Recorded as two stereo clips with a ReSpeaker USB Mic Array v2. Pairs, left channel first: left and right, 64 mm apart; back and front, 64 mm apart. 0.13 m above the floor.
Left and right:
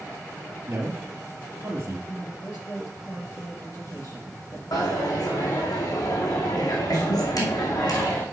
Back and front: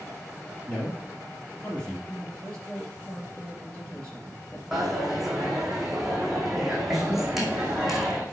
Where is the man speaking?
115° right, 1.8 m.